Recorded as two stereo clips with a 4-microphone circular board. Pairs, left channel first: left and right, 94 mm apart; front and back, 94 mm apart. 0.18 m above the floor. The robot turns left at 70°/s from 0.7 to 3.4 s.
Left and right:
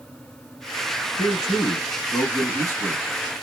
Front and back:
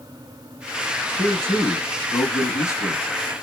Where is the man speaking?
145° left, 1.5 m; by 3.0 s 15° left, 1.5 m.